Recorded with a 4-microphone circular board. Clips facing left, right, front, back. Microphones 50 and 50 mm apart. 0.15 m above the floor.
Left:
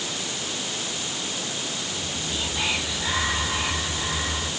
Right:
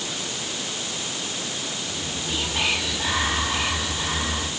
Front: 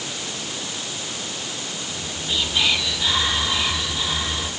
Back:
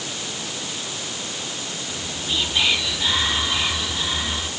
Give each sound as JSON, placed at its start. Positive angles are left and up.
{"t": 1.9, "sound": "whispering", "azimuth_deg": -95, "distance_m": 5.5}